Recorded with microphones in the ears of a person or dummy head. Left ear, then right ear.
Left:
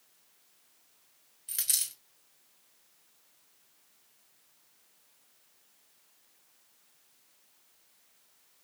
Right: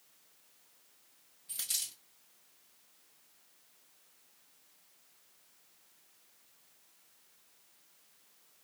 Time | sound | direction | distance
1.5 | a dropped coin | 60° left (ahead or behind) | 2 m